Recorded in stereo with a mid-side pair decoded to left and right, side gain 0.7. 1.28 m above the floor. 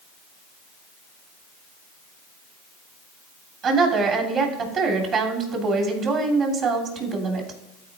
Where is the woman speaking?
45° right, 3 m.